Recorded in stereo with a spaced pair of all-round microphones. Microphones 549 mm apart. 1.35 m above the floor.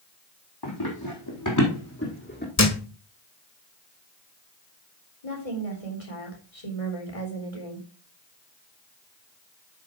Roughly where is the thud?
Left.